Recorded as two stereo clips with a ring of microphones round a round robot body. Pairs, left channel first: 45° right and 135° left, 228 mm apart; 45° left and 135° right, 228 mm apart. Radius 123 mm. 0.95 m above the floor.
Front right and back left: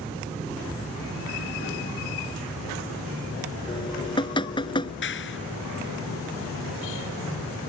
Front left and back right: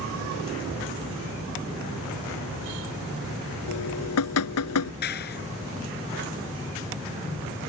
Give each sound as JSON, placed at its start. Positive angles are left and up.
{"t": 3.7, "sound": "dripping", "azimuth_deg": 25}
{"t": 5.0, "sound": "a clap", "azimuth_deg": -5}